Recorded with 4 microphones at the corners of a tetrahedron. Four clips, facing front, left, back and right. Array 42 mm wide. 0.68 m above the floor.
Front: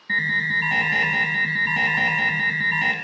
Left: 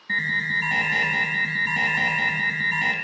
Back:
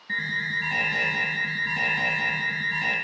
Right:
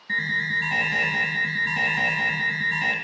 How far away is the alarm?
About 1.3 m.